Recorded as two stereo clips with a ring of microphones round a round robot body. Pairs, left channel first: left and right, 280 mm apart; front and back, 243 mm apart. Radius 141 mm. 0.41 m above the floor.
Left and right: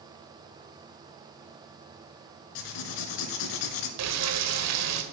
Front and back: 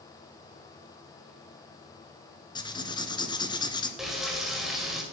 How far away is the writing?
About 1.7 m.